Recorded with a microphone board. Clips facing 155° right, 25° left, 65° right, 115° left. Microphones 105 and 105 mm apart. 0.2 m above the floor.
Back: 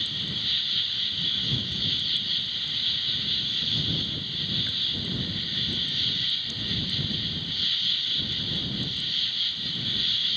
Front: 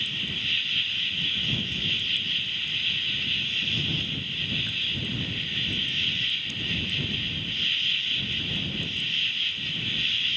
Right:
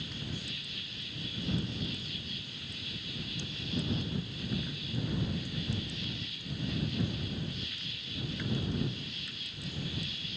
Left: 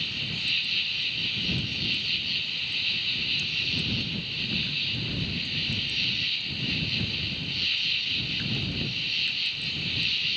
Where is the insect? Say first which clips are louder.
Front 1 dB, left 2 dB; 130° left.